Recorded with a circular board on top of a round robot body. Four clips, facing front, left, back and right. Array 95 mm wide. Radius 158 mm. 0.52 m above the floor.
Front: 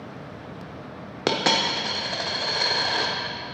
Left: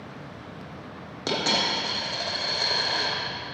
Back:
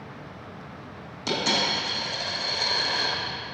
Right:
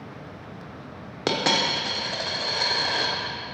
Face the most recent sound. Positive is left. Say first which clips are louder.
# right 3 dB, front 3 dB
turn(degrees=-25)